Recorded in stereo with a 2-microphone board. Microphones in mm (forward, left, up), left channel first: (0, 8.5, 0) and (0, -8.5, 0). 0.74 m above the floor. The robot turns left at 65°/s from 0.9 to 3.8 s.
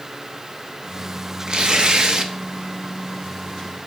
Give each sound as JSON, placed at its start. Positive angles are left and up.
{"t": 1.5, "sound": "tearing paper", "azimuth_deg": -70, "distance_m": 0.7}